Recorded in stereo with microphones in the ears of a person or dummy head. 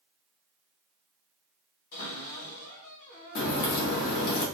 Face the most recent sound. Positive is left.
turn(degrees=65)  # may be behind; listen again after turning